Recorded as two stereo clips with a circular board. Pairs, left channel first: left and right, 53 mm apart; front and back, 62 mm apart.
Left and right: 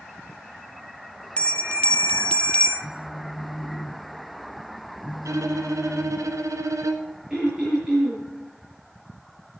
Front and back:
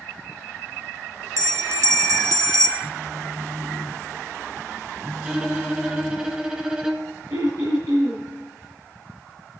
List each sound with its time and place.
1.4 s a bell: 155° left, 0.9 m
2.8 s a phone buzzing: 125° left, 0.6 m
5.2 s a violin: 105° right, 1.3 m
7.3 s throat clearing: 170° right, 7 m